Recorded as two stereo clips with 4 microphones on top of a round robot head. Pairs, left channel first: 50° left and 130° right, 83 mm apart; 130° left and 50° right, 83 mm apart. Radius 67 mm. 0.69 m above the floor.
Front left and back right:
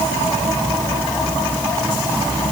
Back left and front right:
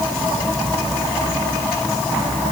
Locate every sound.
Only background noise.